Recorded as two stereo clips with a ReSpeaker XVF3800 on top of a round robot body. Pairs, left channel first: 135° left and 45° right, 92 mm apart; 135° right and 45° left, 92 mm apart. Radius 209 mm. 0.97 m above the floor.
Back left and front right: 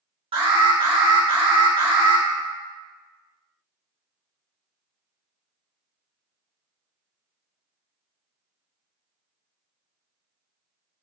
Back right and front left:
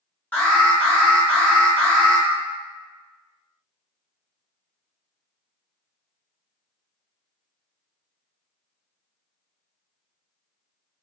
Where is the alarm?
60° right, 1.4 m.